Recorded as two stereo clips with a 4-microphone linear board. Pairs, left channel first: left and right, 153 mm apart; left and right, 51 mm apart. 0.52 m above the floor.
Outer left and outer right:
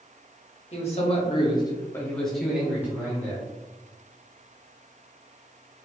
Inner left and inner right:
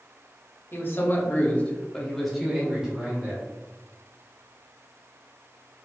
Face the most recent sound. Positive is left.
turn(degrees=-20)  # may be behind; listen again after turning